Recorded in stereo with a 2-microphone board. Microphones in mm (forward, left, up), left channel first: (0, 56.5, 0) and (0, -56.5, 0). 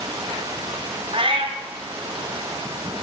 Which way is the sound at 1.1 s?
55° right (ahead or behind).